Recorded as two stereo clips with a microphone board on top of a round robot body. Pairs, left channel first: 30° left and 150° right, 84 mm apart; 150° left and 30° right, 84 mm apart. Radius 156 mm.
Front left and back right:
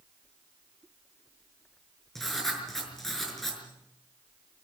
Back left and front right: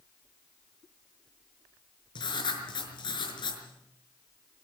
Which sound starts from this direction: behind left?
Writing, at 2.1 s.